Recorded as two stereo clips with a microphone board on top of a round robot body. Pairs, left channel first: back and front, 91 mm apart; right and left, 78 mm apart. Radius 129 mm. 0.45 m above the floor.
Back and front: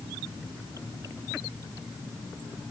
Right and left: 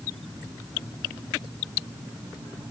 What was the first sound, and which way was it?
Only background noise.